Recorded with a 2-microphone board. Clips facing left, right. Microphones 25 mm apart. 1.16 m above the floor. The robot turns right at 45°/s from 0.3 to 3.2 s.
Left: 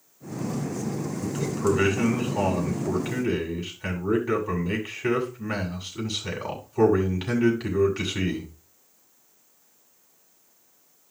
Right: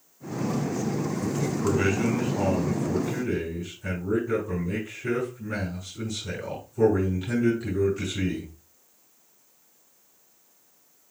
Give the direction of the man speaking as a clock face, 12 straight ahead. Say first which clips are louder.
Left 3 dB; 11 o'clock.